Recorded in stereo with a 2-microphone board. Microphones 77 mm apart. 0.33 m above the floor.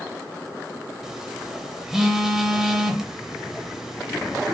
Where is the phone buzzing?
5° right (ahead or behind), 0.7 m.